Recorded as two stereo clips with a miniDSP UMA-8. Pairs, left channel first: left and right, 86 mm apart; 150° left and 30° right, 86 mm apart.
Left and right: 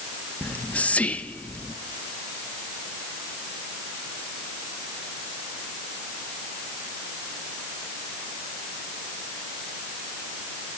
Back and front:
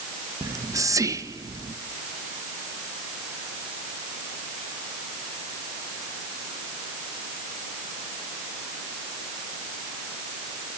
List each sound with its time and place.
0.4 s whispering: 15° left, 1.1 m